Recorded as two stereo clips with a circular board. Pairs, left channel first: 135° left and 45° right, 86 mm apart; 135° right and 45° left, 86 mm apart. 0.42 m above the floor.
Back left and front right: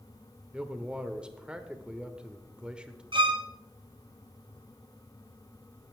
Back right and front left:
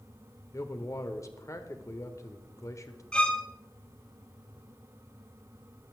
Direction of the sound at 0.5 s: 120° right.